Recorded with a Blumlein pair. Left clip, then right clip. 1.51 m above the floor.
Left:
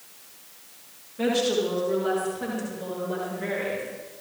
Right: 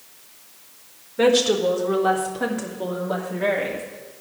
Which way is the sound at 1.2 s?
40° right.